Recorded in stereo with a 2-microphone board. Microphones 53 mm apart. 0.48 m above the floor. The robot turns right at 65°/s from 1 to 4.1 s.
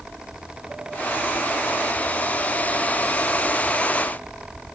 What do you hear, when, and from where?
Only background noise.